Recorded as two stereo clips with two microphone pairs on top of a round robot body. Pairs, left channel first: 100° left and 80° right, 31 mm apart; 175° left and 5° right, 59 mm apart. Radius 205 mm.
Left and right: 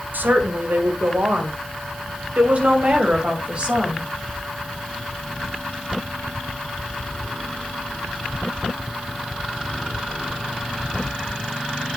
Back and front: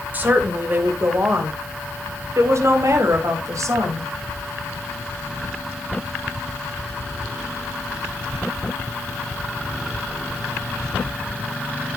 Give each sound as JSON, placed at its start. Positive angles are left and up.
{"t": 0.1, "sound": "a woman speaking", "azimuth_deg": -65, "distance_m": 2.5}